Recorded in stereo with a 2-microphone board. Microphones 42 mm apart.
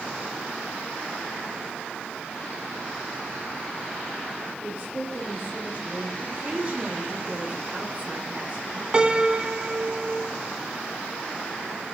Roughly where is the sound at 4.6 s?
Right.